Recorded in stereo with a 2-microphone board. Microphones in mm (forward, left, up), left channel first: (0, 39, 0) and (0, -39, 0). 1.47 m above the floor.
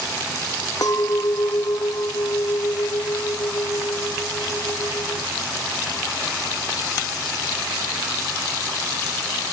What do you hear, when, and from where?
0.8 s a clink: 50° left (ahead or behind)